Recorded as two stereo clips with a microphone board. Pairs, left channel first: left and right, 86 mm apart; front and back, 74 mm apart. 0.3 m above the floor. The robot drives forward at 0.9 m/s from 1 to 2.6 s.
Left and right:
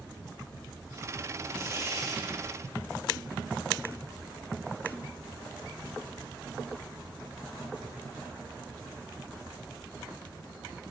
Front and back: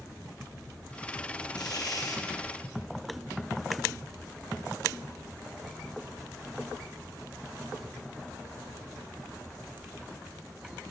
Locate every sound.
1.5 s tearing paper: 30° right, 2.5 m; by 2.2 s 40° right, 1.9 m